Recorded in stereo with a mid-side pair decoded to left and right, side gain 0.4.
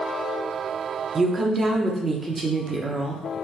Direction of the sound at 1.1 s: 40° right.